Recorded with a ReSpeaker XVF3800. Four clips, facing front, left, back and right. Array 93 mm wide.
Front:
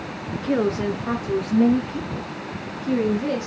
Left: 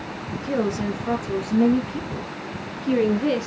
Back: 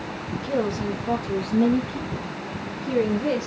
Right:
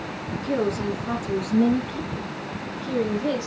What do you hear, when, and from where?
0.3 s a woman speaking: 20° left, 2.5 m; by 3.5 s 90° left, 2 m